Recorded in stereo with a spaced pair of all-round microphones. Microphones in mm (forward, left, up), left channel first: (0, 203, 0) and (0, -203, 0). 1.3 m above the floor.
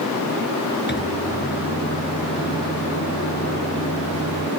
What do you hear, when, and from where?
0.9 s a microwave: 25° left (ahead or behind)